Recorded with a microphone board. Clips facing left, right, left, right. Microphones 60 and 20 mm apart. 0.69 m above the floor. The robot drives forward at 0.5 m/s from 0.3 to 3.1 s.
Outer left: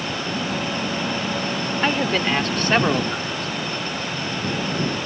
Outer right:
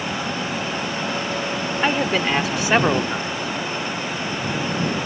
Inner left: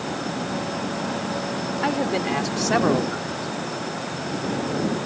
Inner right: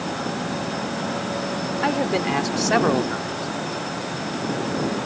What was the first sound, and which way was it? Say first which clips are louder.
A man speaking: outer right 1 dB, inner right 2 dB; 5° right (ahead or behind).